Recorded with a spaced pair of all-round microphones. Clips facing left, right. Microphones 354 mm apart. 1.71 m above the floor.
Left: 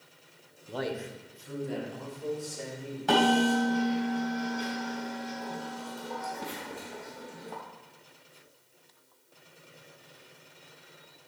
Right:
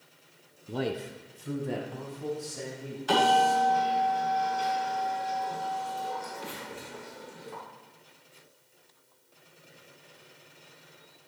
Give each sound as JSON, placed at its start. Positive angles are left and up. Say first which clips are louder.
{"t": 0.7, "sound": "a man speaking", "louder": "right 2 dB", "side_deg": -30, "distance_m": 0.6}
{"t": 3.1, "sound": "a bell", "louder": "left 3 dB", "side_deg": 65, "distance_m": 3.5}